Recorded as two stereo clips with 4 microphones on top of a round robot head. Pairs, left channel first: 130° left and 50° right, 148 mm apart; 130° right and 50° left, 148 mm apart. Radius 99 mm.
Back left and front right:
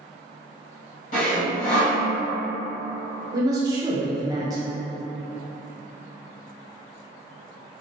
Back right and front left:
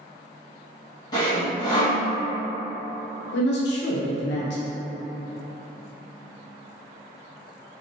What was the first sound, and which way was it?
Sawing, 170° left.